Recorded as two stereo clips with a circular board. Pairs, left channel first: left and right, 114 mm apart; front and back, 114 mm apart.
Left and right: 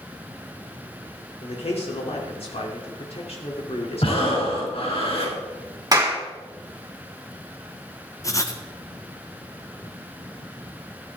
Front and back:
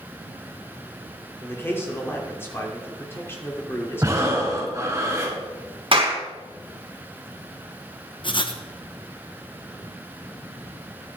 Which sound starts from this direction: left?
A man speaking, at 1.4 s.